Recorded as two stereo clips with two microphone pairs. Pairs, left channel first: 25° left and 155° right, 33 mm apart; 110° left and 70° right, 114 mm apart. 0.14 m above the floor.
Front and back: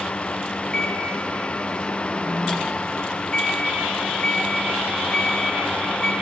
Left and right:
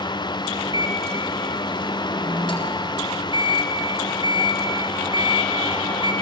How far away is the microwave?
About 1.8 m.